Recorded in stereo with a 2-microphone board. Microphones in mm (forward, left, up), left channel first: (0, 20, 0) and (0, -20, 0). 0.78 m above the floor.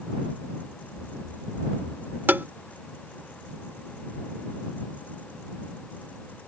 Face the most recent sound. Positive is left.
turn(degrees=-60)  # may be behind; listen again after turning